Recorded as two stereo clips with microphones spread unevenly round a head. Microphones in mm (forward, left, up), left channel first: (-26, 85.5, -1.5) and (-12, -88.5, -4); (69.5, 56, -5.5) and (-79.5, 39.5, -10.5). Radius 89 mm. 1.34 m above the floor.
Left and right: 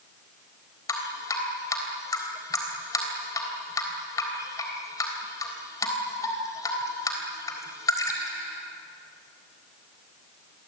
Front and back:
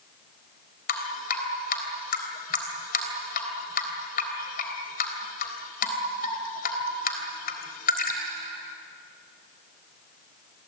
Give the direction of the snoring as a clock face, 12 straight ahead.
No snoring in this recording.